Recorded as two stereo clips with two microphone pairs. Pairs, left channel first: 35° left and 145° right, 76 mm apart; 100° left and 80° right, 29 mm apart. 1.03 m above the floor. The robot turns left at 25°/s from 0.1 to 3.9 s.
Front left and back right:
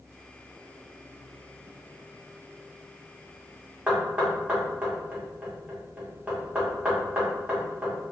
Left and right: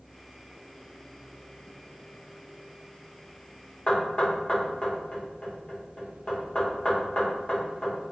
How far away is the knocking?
About 0.9 m.